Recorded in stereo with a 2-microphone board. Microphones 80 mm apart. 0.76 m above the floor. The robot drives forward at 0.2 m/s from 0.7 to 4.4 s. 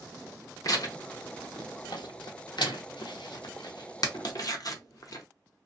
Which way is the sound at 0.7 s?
50° left (ahead or behind).